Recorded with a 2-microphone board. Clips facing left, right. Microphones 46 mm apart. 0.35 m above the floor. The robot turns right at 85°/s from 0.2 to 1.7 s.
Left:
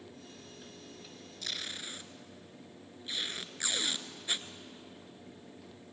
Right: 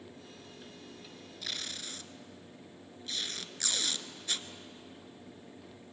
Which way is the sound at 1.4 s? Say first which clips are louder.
Left 1 dB; 5° right (ahead or behind).